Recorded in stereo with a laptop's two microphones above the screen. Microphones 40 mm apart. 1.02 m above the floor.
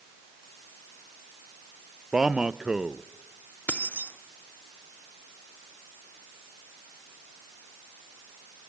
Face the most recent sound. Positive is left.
turn(degrees=45)  # may be behind; listen again after turning